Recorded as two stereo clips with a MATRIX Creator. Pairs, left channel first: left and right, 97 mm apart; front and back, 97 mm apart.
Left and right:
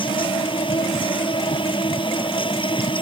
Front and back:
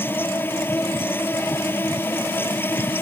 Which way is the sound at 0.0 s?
65° left.